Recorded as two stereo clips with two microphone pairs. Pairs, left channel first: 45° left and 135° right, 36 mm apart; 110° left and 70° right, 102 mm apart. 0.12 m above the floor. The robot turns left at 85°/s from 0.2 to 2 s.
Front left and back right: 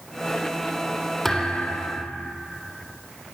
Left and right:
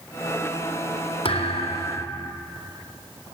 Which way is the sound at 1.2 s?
120° left.